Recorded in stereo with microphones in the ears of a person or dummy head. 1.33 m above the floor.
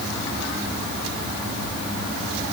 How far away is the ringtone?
I don't hear a ringtone.